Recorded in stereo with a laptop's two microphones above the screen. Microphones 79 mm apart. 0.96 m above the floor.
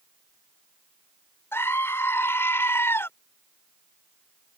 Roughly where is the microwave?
I don't hear a microwave.